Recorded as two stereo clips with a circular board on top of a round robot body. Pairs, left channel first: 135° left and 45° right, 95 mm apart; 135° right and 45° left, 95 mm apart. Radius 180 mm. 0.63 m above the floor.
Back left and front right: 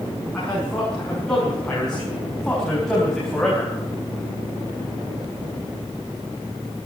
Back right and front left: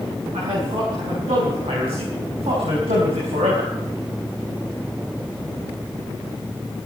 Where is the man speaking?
55° left, 7 m; by 3.7 s 50° left, 4 m.